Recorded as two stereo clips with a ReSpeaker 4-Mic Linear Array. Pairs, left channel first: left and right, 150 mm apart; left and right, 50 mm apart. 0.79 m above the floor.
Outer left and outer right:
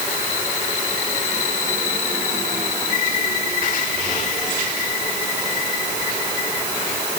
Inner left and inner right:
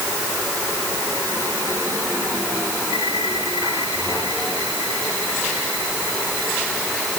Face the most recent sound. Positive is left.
No sound to turn to.